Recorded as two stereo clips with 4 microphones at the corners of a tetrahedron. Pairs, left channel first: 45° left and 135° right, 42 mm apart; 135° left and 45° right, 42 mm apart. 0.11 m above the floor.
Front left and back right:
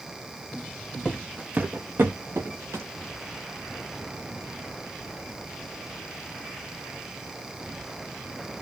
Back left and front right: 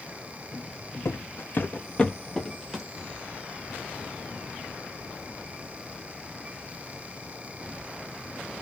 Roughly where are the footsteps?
Behind left.